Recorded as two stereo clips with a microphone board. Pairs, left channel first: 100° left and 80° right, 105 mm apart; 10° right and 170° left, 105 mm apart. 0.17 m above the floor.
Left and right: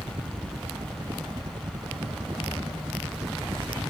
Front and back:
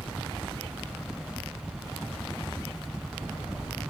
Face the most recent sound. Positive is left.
turn(degrees=-100)